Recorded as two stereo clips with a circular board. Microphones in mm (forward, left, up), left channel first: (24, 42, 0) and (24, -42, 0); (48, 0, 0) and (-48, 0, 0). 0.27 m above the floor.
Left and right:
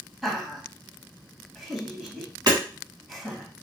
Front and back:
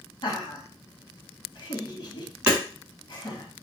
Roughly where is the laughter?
Ahead.